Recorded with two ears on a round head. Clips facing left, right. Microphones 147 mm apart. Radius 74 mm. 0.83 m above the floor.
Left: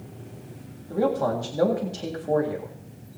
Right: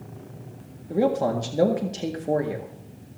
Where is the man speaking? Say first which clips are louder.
Right 1 dB; 20° right (ahead or behind), 1.7 m.